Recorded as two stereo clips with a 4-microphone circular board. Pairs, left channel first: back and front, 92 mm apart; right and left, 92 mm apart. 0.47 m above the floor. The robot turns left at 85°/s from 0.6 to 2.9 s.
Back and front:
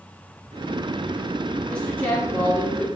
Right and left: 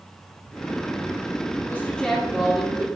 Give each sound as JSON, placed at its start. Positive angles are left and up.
{"t": 1.7, "sound": "a woman speaking", "azimuth_deg": -120, "distance_m": 1.3}